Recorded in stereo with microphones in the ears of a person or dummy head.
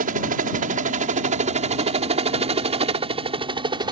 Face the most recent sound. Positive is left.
turn(degrees=-25)  # may be behind; listen again after turning